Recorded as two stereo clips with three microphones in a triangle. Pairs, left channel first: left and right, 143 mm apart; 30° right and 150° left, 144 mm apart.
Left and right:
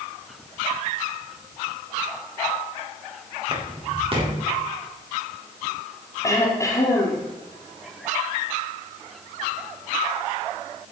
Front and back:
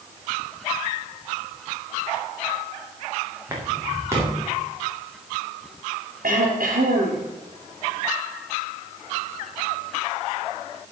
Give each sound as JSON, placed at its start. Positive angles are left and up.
{"t": 3.5, "sound": "footsteps", "azimuth_deg": -140, "distance_m": 4.5}
{"t": 6.2, "sound": "throat clearing", "azimuth_deg": 160, "distance_m": 4.0}